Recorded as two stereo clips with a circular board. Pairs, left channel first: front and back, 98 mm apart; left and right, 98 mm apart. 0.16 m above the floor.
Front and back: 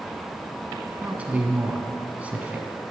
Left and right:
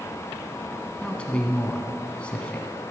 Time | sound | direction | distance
1.0 | a man speaking | 140° left | 1.3 m